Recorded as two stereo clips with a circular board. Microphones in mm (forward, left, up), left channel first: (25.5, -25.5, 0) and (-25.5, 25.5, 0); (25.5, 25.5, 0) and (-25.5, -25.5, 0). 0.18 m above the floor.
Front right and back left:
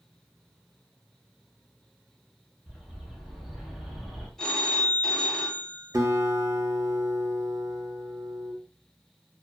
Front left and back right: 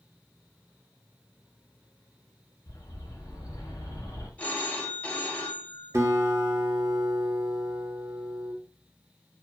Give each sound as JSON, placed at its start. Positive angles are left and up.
{"t": 2.7, "sound": "a bird", "azimuth_deg": 45, "distance_m": 0.9}
{"t": 4.4, "sound": "a phone ringing", "azimuth_deg": 15, "distance_m": 0.6}
{"t": 5.9, "sound": "a guitar", "azimuth_deg": 180, "distance_m": 0.6}